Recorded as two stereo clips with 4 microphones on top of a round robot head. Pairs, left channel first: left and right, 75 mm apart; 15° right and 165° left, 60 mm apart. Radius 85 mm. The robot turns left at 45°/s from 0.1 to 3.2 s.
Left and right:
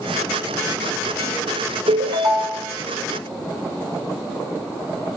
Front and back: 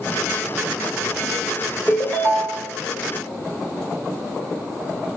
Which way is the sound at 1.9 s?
100° right.